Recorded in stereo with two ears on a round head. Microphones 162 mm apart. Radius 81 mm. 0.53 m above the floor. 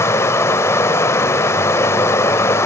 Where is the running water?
15° left (ahead or behind), 0.9 m.